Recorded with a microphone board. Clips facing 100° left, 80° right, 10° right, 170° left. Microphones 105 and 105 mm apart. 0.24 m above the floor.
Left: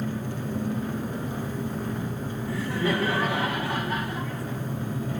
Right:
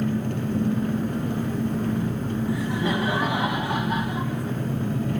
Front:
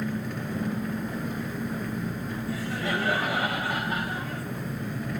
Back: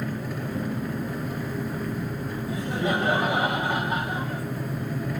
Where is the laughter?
135° right, 1.7 m.